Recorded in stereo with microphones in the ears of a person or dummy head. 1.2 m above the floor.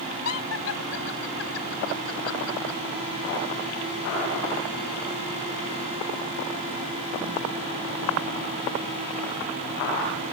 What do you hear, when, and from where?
0.2 s laughter: 80° left